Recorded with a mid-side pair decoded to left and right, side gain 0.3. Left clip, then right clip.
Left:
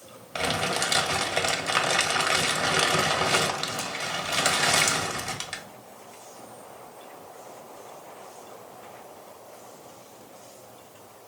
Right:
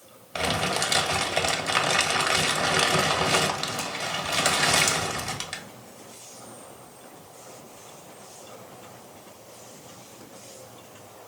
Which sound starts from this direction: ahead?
Crumpling, at 0.3 s.